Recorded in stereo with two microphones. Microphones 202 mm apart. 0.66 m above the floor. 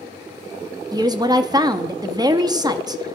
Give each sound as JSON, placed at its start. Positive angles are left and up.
{"t": 0.9, "sound": "a woman speaking", "side_deg": -20, "distance_m": 0.5}